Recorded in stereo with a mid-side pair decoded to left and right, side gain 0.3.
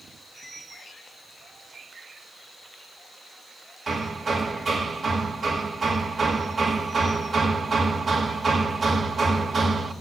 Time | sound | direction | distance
3.9 | hammering | 55° right | 2 m